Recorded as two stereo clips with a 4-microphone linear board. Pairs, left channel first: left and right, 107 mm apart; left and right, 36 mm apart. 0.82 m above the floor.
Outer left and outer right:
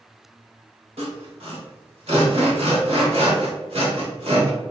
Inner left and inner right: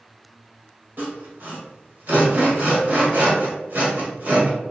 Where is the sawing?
65° right (ahead or behind), 1.0 m.